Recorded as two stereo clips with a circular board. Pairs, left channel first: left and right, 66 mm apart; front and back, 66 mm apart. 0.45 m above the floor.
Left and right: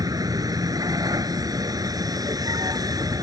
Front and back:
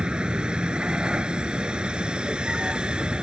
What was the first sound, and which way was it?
A vehicle, 105° right.